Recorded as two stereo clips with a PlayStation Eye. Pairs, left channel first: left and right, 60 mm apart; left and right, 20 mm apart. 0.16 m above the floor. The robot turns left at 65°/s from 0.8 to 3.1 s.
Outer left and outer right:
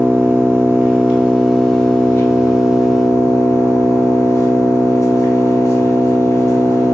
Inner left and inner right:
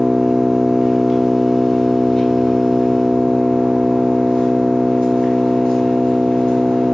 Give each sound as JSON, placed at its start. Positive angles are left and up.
{"t": 0.0, "sound": "an engine running", "azimuth_deg": -130, "distance_m": 1.2}